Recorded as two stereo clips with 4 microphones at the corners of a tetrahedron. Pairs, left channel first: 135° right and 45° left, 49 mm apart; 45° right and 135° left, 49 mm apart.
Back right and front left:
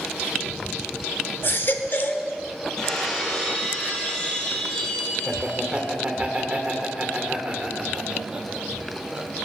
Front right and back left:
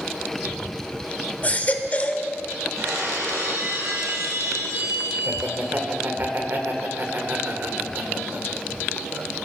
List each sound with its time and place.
1.4 s a baby crying: 100° right, 1.0 m
2.8 s breaking glass: 150° left, 4.5 m
5.2 s laughter: 105° left, 2 m